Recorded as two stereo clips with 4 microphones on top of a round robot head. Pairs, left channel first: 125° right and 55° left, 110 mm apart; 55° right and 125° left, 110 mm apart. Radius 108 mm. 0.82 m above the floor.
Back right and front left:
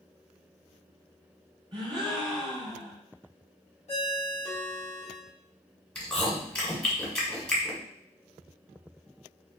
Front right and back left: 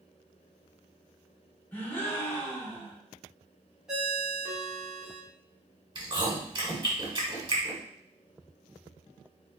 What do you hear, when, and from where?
1.7 s a gasp: 15° left, 2 m
3.9 s a ringtone: 150° right, 1.7 m
6.0 s chewing: 160° left, 1.7 m